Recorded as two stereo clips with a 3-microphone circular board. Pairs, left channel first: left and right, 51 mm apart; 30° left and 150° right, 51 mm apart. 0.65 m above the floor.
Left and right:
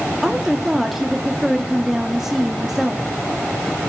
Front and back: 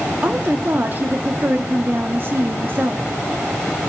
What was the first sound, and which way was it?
A woman speaking, 170° right.